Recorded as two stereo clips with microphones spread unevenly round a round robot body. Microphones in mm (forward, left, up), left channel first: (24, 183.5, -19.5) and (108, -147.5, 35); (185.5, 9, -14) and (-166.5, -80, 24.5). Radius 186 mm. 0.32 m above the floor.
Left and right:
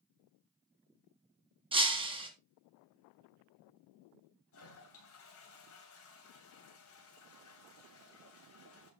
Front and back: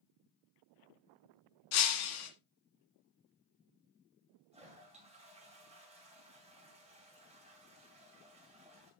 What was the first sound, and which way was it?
Breaking glass, straight ahead.